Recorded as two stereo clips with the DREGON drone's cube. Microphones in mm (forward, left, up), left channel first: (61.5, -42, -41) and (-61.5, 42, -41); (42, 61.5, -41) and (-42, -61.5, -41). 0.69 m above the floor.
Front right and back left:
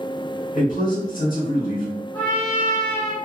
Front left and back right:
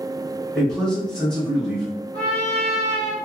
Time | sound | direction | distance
0.5 | a man speaking | 35° right | 1.3 m
2.1 | a trumpet | 40° left | 1.3 m